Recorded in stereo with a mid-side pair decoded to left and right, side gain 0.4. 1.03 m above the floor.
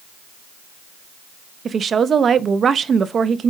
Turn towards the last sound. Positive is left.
turn(degrees=-50)